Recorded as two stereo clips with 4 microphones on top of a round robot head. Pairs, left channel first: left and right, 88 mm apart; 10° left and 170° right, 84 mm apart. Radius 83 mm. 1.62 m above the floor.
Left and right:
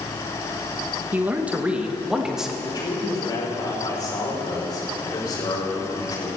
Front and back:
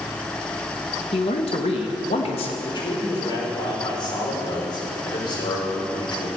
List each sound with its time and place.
1.1 s a man speaking: 20° right, 1.4 m; by 2.5 s 5° right, 2 m
2.6 s a man speaking: 40° left, 5 m